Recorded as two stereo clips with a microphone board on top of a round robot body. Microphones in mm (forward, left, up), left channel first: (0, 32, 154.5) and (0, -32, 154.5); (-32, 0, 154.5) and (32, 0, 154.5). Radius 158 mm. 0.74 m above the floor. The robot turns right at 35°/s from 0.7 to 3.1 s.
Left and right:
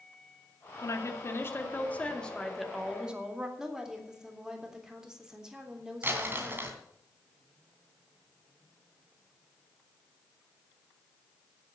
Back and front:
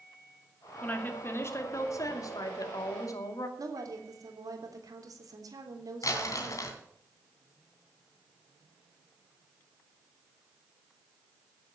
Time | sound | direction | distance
0.8 | a woman speaking | 115° left | 2.5 m
3.6 | a woman speaking | 10° right | 3 m
6.0 | crumpling | 150° right | 2.5 m